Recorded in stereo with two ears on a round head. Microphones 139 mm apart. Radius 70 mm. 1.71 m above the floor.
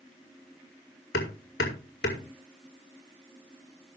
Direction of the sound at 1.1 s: 75° left (ahead or behind).